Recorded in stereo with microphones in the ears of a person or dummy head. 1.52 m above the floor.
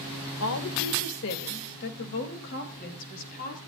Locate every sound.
0.4 s a woman speaking: 85° left, 2 m; by 3.6 s 50° left (ahead or behind), 4.5 m